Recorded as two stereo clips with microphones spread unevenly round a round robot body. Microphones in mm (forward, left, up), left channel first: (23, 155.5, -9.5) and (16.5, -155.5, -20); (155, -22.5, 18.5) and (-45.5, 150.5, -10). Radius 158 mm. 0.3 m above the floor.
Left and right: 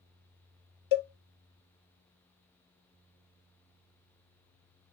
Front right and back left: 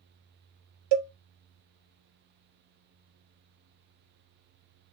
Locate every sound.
0.9 s a cowbell: 125° left, 0.6 m